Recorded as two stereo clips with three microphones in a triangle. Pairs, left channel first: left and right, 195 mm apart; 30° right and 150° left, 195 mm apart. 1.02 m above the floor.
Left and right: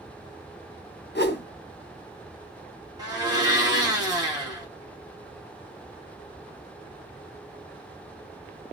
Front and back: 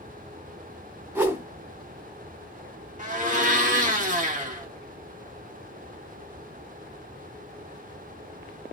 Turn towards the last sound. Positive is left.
turn(degrees=-160)